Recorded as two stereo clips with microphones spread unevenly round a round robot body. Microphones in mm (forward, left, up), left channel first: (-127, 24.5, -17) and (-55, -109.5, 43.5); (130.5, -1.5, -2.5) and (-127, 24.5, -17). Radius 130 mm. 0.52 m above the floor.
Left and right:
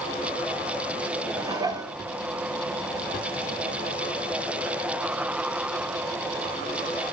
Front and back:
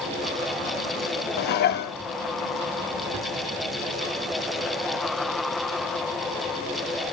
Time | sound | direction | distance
1.4 | dishes clattering | 25° left | 0.7 m